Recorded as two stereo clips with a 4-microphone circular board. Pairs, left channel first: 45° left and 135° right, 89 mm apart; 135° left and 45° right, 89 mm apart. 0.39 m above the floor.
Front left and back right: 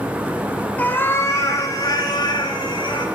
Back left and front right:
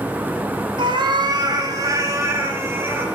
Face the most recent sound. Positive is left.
turn(degrees=20)